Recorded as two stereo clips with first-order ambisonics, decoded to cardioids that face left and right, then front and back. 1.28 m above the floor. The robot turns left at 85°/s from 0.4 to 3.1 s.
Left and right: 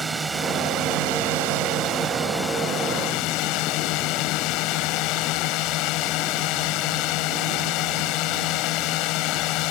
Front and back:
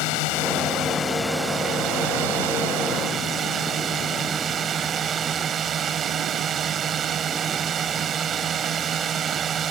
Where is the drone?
10° right; by 9.7 s 120° left.